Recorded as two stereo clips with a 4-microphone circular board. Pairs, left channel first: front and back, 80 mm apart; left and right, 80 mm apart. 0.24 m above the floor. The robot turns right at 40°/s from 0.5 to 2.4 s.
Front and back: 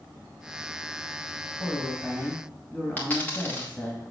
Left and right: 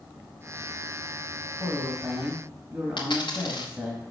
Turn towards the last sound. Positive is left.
turn(degrees=70)